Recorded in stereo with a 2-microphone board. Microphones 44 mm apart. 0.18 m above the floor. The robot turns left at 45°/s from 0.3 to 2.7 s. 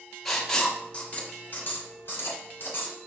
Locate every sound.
0.2 s writing: 5° left (ahead or behind), 1.2 m; by 3.0 s 50° left (ahead or behind), 1.2 m